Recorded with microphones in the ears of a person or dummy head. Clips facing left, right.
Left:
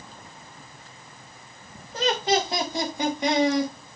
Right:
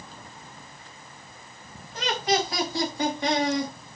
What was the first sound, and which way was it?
Laughter, 40° left (ahead or behind).